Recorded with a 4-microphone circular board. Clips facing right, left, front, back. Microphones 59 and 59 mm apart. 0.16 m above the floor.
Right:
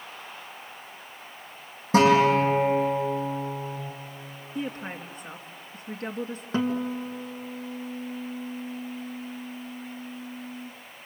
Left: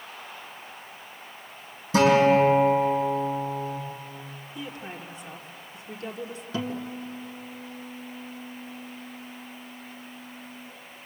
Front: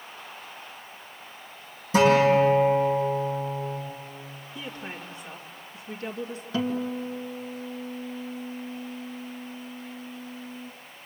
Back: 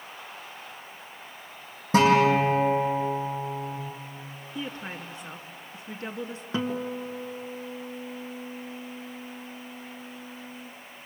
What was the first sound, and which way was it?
A guitar, 140° right.